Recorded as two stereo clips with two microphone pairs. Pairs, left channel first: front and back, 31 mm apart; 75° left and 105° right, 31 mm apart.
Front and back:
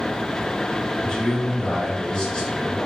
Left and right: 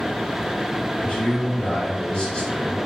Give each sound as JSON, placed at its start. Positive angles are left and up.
{"t": 1.0, "sound": "a man speaking", "azimuth_deg": 60, "distance_m": 1.6}